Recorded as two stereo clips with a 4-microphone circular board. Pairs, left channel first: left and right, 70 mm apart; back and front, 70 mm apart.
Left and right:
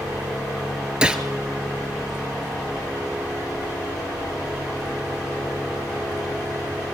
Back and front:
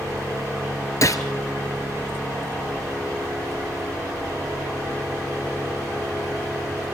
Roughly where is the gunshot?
Behind.